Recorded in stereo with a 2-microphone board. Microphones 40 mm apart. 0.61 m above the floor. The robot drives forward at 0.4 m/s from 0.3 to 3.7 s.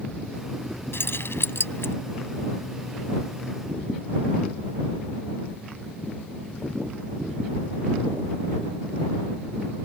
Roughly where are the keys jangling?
Left.